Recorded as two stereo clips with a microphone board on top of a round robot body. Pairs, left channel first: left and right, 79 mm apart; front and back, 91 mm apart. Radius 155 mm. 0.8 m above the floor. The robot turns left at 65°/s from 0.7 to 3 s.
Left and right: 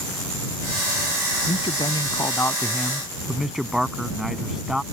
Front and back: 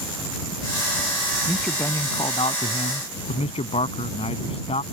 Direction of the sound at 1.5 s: 95° left.